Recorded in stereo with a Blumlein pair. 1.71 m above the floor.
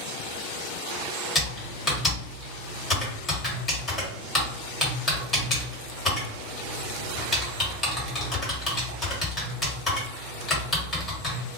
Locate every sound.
1.4 s typing on a keyboard: 15° left, 1.2 m